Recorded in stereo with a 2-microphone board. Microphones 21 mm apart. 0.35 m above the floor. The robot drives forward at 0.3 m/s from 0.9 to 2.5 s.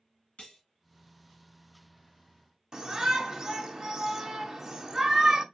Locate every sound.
0.4 s cutlery clinking: 70° left (ahead or behind), 2.0 m
2.7 s a shout: 30° right (ahead or behind), 1.1 m